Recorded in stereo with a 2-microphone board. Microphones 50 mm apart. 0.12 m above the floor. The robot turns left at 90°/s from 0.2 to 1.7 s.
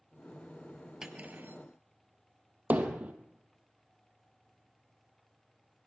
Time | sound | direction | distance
1.0 | cutlery clinking | 15° right | 1.2 m
2.7 | hammering | 30° right (ahead or behind) | 1.6 m